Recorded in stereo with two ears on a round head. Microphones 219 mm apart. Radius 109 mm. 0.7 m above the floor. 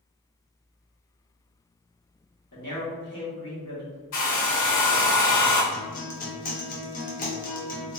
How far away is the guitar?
About 0.8 m.